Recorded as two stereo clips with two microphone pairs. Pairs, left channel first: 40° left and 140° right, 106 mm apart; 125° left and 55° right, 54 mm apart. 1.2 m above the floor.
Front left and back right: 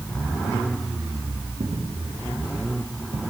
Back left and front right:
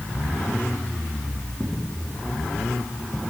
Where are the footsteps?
160° right, 4.5 m; by 3.2 s 150° right, 3.5 m.